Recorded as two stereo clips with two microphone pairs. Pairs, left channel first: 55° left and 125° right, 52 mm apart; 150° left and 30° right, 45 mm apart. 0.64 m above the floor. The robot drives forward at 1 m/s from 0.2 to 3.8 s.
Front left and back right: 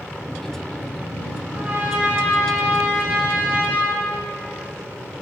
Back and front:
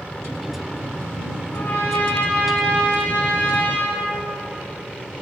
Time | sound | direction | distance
1.5 | a trumpet | 170° right | 3 m